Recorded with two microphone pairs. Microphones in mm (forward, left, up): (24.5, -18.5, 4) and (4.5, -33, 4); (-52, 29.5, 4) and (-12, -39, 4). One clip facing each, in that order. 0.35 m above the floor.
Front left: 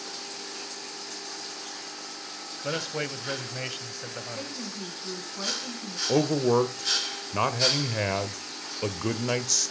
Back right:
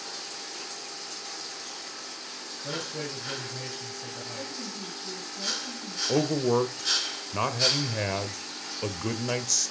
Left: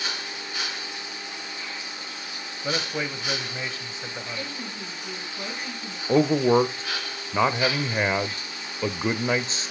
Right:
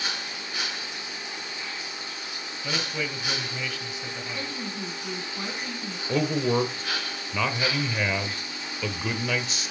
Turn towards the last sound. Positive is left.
turn(degrees=110)